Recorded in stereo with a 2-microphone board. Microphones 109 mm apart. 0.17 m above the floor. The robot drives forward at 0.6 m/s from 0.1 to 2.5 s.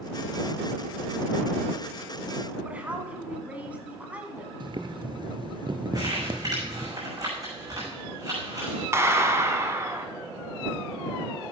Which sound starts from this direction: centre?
A woman speaking, at 2.6 s.